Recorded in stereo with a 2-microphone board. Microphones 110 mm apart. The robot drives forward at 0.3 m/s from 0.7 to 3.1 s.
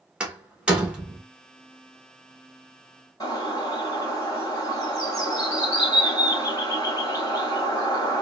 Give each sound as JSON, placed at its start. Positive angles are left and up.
{"t": 0.2, "sound": "a door slam", "side_deg": -10, "distance_m": 1.0}
{"t": 3.2, "sound": "a bird", "side_deg": 35, "distance_m": 1.8}